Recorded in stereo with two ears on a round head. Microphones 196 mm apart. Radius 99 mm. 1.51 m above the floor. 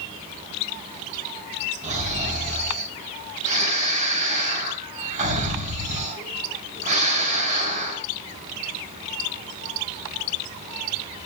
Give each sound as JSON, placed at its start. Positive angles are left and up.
{"t": 1.8, "sound": "snoring", "side_deg": -35, "distance_m": 3.0}